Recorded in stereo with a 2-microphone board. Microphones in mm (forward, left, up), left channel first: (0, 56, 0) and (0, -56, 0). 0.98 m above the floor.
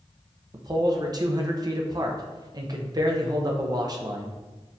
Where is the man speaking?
35° right (ahead or behind), 0.5 m.